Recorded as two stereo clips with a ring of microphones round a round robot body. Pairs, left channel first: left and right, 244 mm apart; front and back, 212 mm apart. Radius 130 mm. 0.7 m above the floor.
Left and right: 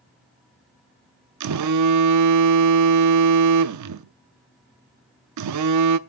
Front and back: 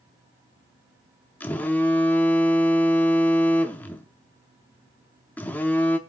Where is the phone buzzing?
85° right, 0.7 m.